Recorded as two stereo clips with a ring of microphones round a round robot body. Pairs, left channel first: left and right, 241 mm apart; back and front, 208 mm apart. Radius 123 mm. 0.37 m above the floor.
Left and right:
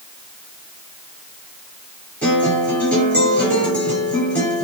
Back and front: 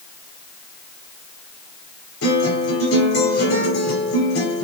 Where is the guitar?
175° left, 5.5 m.